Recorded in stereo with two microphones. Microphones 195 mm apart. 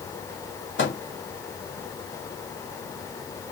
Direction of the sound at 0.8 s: 70° left (ahead or behind).